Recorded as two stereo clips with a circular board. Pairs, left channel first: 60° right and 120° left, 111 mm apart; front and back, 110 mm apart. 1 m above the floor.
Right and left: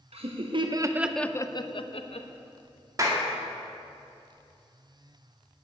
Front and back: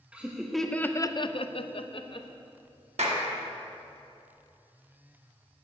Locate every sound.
0.1 s laughter: 100° left, 1.0 m; by 2.3 s 40° right, 1.1 m
3.0 s a clap: straight behind, 1.9 m